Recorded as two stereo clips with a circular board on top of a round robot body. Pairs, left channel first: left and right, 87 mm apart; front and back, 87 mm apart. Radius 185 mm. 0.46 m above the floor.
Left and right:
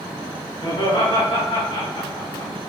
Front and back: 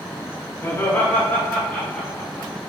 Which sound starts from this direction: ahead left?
Laughter, at 0.6 s.